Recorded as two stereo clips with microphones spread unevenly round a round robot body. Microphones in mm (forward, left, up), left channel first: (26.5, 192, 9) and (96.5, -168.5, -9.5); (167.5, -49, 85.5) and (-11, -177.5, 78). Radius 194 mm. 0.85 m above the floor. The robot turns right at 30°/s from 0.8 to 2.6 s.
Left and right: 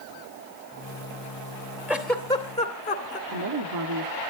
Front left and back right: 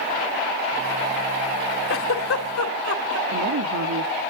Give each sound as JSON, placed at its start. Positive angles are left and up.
{"t": 1.9, "sound": "a giggle", "azimuth_deg": 5, "distance_m": 2.5}
{"t": 3.3, "sound": "a woman speaking", "azimuth_deg": -125, "distance_m": 1.4}